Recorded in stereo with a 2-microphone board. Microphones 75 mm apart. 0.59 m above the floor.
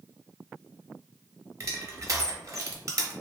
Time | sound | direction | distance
1.6 | crushing | 45° right (ahead or behind) | 0.6 m